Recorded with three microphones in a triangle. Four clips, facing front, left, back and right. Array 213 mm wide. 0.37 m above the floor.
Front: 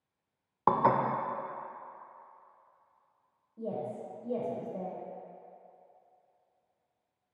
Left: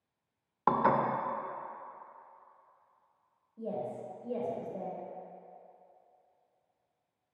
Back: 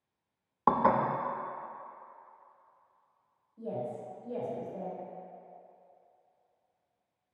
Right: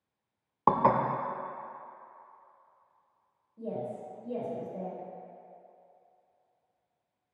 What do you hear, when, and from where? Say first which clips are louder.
0.7 s dishes clattering: right 3 dB, even; 85° right, 0.5 m
3.6 s a woman speaking: right 1 dB, even; 5° left, 1.6 m